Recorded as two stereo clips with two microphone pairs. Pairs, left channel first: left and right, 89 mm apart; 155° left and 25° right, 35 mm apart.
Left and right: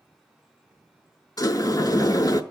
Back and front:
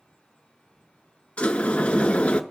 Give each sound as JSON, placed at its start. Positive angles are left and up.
{"t": 1.4, "sound": "a sliding door", "azimuth_deg": 120, "distance_m": 0.6}